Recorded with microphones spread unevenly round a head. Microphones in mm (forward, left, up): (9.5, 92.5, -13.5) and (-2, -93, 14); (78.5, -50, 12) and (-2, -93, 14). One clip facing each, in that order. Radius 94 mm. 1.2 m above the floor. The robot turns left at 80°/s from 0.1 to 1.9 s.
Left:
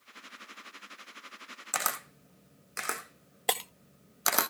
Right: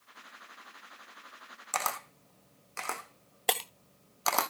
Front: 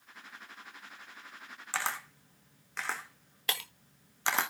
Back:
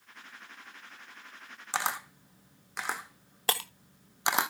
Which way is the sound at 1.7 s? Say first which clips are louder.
Right 2 dB, back 3 dB; 165° left.